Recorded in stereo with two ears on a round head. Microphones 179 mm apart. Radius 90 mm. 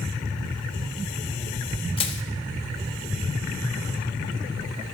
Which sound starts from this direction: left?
Crushing, at 2.0 s.